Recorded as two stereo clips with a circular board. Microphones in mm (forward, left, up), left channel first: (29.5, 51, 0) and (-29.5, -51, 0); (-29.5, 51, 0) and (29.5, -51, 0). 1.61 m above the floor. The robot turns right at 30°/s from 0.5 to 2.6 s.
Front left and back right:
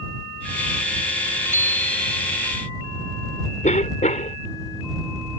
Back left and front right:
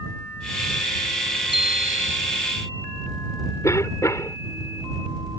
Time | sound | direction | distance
1.5 | a bicycle bell | 170° left | ?
3.6 | a cough | 55° left | ?